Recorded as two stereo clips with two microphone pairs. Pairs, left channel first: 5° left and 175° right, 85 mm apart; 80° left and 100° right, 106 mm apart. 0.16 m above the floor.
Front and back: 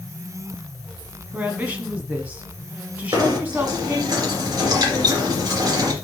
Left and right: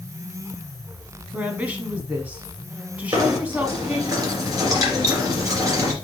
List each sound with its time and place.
1.3 s a woman speaking: 145° right, 1.5 m
3.1 s knocking: 150° right, 3 m